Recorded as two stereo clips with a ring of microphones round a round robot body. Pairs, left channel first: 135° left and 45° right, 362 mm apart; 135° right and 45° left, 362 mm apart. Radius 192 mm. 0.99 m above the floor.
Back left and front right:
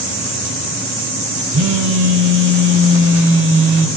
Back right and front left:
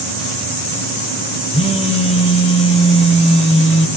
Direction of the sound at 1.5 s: 70° right.